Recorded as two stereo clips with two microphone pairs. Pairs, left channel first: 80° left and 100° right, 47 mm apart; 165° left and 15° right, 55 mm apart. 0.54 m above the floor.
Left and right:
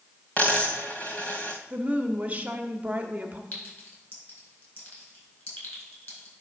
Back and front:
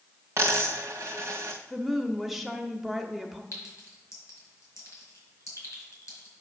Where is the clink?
130° left, 4 m.